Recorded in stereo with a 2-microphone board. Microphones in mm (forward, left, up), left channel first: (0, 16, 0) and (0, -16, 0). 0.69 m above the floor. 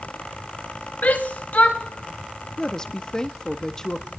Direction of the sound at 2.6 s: 20° left (ahead or behind).